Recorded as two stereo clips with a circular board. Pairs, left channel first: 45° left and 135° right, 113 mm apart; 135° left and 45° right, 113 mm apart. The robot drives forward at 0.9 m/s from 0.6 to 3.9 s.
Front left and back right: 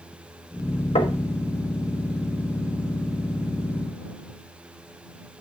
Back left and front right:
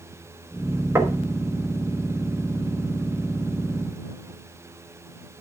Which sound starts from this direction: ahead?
Knocking, at 0.9 s.